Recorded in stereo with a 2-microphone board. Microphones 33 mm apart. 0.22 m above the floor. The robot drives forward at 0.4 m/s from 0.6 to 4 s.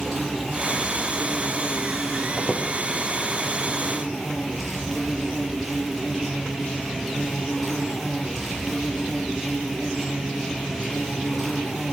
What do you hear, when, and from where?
0.0 s an insect: centre (ahead or behind), 9 m
2.4 s a squeak: 25° left (ahead or behind), 5 m; by 2.6 s 30° left (ahead or behind), 5 m